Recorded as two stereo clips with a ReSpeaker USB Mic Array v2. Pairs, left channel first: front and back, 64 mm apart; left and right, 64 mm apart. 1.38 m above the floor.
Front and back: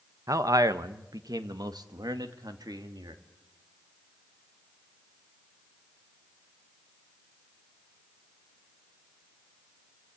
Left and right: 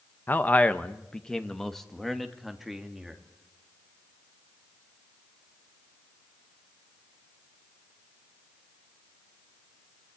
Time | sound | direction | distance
0.3 | a man speaking | 150° left | 1.2 m